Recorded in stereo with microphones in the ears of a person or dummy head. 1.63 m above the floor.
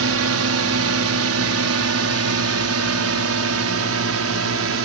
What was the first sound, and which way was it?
A drone, 70° right (ahead or behind).